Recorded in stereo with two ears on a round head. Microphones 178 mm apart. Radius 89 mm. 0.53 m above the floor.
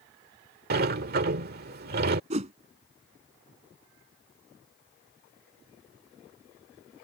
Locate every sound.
0.7 s a sliding door: 50° right (ahead or behind)
2.3 s a whoosh: 35° right (ahead or behind)